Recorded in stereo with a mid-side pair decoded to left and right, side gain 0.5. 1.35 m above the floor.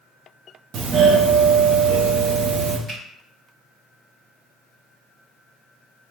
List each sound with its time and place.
0.7 s a doorbell: 60° right, 0.6 m
2.9 s a finger snap: 45° right, 1.4 m